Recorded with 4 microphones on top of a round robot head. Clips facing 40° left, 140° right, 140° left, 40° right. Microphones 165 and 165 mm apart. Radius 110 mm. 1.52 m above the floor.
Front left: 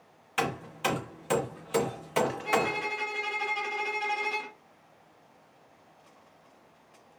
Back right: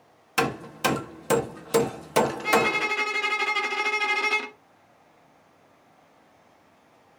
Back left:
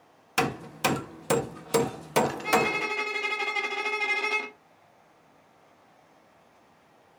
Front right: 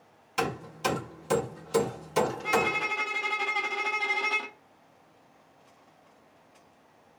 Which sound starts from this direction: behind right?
A violin, at 2.4 s.